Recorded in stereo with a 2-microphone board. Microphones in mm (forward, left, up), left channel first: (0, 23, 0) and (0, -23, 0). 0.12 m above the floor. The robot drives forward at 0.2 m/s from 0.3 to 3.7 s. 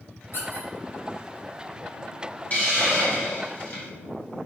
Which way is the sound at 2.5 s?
35° left (ahead or behind).